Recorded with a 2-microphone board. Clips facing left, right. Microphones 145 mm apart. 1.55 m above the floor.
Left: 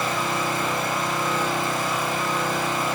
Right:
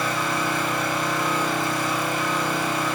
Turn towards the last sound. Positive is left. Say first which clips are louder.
# even
turn(degrees=25)  # may be behind; listen again after turning